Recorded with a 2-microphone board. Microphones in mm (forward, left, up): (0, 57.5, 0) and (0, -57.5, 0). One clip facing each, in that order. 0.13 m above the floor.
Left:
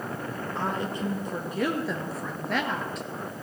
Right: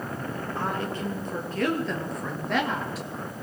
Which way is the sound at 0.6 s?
20° left (ahead or behind).